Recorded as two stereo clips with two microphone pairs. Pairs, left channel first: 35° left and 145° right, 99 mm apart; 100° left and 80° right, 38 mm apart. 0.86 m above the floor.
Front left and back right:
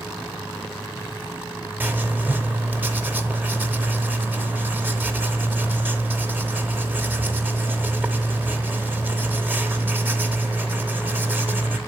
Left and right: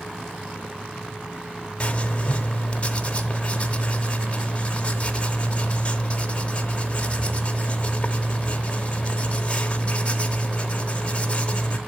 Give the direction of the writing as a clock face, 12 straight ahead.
7 o'clock.